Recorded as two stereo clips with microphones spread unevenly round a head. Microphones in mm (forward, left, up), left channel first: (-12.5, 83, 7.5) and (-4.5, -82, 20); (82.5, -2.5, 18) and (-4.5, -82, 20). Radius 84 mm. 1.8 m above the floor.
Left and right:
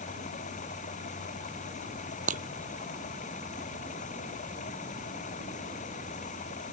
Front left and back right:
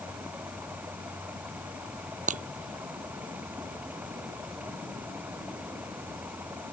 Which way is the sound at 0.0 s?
140° left.